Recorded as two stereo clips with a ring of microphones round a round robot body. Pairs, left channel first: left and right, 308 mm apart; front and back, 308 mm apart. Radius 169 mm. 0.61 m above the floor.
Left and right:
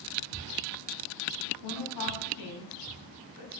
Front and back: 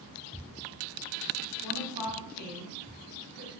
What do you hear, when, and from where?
1.6 s a woman speaking: 115° left, 4 m